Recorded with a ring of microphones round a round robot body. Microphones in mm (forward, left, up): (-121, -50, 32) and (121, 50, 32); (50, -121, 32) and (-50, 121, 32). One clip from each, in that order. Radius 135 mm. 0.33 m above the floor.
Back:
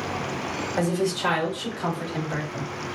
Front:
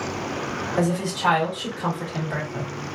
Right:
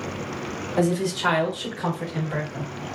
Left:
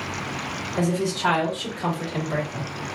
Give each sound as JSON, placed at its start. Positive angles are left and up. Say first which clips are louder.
{"t": 0.8, "sound": "a woman speaking", "louder": "even, right 2 dB", "azimuth_deg": -80, "distance_m": 1.4}